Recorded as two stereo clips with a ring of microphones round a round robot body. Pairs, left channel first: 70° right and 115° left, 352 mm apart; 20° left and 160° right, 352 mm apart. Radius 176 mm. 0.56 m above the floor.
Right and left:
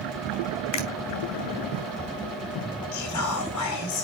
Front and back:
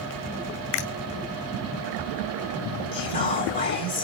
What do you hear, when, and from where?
0.7 s a finger snap: 25° right, 2.0 m
2.9 s whispering: 35° right, 1.6 m